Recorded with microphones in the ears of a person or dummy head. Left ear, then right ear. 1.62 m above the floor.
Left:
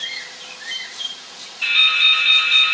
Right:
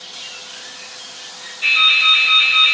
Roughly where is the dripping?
Left.